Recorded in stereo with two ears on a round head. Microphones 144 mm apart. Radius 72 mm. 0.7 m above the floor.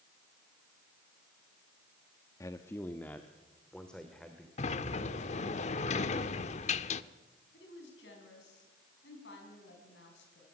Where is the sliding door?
45° left (ahead or behind), 0.9 m.